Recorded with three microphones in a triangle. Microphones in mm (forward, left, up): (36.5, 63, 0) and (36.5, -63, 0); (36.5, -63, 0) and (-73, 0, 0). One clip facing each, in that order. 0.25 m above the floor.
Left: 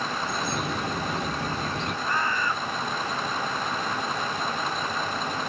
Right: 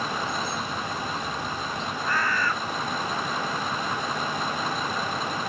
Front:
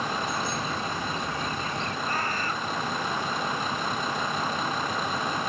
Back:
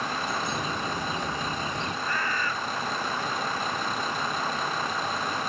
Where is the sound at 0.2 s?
80° left.